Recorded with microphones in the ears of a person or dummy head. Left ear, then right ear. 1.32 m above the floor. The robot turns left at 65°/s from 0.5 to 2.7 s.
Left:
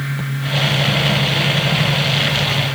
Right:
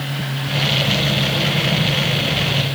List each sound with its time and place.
Only background noise.